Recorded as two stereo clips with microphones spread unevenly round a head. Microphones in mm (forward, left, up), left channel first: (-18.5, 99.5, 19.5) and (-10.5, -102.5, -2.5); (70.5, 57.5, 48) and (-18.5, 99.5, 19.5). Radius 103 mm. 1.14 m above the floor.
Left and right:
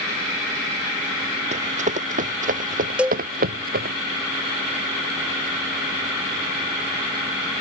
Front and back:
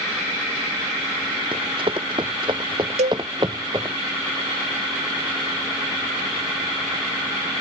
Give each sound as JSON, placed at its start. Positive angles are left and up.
{"t": 1.5, "sound": "running footsteps", "azimuth_deg": -145}
{"t": 3.0, "sound": "a cowbell", "azimuth_deg": -175}